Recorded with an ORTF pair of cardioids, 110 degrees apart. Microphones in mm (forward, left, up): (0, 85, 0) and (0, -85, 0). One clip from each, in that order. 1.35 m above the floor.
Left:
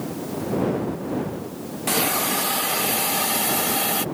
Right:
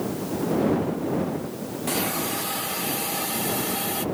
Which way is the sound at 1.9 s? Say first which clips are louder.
Left 5 dB; 35° left.